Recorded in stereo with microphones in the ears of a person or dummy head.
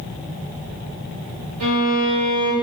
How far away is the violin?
About 4.5 m.